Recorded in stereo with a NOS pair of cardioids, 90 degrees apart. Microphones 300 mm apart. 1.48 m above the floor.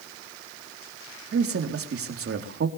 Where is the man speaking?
50° right, 4 m.